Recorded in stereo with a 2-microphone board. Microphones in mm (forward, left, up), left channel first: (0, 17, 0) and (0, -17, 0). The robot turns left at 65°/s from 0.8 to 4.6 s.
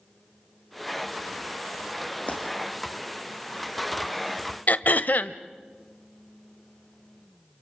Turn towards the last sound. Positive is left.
turn(degrees=60)  # may be behind; listen again after turning